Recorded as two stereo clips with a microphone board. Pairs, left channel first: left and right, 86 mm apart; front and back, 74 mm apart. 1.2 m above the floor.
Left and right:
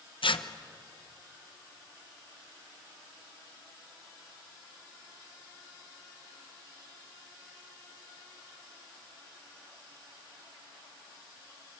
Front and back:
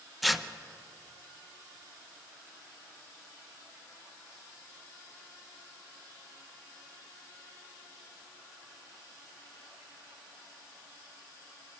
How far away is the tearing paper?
About 0.7 m.